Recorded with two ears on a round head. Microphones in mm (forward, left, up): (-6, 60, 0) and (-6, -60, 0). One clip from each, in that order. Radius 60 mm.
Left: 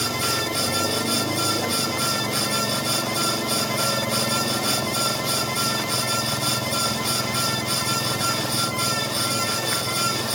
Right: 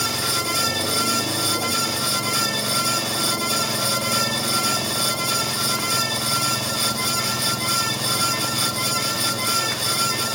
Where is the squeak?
I don't hear a squeak.